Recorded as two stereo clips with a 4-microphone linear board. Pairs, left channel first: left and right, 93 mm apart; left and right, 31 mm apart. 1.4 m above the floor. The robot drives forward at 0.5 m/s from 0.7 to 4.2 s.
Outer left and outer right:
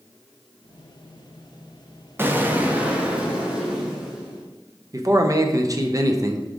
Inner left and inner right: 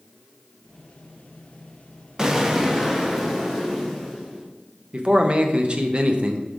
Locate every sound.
2.2 s an explosion: 25° right (ahead or behind), 0.6 m; by 4.5 s 10° right (ahead or behind), 1.5 m
4.9 s a man speaking: 35° right (ahead or behind), 0.7 m